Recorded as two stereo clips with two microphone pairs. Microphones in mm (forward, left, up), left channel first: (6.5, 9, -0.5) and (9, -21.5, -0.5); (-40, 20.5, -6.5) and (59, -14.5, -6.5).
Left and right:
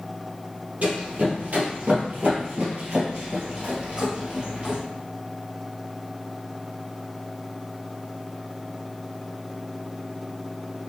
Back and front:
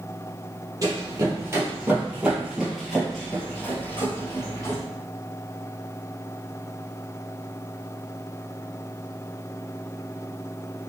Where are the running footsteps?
70° right, 2.0 m; by 4.8 s 145° right, 2.0 m.